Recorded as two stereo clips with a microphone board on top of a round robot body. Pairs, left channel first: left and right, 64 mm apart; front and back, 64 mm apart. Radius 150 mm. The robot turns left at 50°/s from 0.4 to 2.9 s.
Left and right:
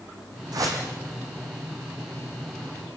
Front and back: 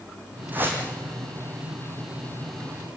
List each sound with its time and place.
0.5 s a whoosh: 115° right, 5 m; by 0.8 s 130° right, 5 m